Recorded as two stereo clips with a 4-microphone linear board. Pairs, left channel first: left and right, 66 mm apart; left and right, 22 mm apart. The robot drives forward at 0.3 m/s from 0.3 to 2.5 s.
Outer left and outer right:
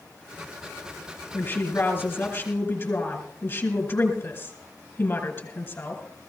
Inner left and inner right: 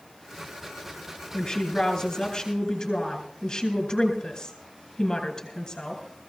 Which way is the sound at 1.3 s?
30° left (ahead or behind).